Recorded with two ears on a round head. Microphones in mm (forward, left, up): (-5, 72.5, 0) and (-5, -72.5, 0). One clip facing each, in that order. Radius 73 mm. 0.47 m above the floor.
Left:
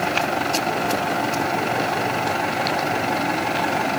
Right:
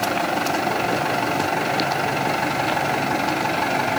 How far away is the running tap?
No running tap in this recording.